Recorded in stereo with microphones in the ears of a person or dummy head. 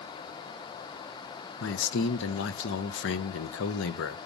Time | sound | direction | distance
1.6 | a man speaking | 70° left (ahead or behind) | 0.7 m